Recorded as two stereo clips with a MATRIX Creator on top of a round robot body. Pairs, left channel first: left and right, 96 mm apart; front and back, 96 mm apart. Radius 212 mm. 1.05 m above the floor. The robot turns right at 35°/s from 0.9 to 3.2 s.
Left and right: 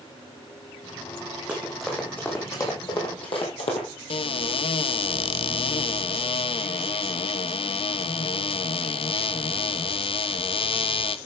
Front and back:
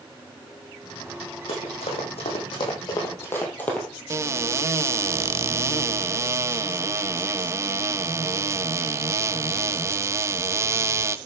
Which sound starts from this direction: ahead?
Running footsteps, at 1.5 s.